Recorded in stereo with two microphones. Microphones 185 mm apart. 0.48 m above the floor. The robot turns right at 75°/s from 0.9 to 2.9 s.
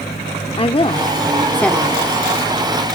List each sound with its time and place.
0.6 s a woman speaking: 110° left, 1.0 m; by 2.0 s 165° right, 1.0 m